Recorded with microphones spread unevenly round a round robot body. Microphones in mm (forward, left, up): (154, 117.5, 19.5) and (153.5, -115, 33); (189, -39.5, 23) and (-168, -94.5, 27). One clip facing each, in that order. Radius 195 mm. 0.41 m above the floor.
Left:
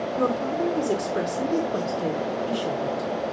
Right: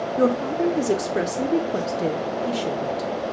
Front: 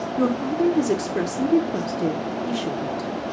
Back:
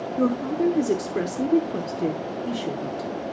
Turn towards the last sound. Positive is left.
turn(degrees=-65)